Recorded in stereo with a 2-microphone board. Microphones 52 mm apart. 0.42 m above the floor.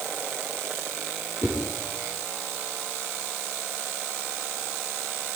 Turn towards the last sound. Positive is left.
turn(degrees=-75)  # may be behind; listen again after turning